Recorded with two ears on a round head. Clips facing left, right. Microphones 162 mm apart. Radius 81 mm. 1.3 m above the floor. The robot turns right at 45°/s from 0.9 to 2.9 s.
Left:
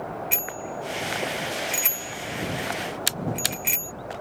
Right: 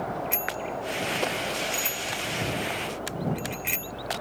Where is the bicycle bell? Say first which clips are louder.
Right 1 dB; 35° left (ahead or behind); by 3.9 s 55° left (ahead or behind).